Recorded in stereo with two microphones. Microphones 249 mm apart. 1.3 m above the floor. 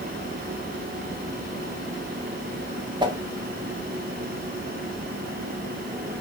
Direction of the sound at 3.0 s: 20° right (ahead or behind).